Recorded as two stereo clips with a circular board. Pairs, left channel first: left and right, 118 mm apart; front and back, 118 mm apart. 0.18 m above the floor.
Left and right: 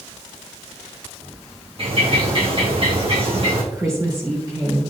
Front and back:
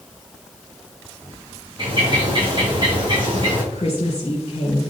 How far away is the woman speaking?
About 3.5 m.